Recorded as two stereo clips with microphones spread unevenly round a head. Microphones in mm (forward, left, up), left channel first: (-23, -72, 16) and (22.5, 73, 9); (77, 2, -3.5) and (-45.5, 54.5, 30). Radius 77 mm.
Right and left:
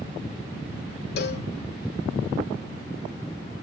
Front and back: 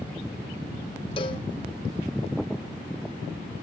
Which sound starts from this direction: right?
A cowbell, at 1.2 s.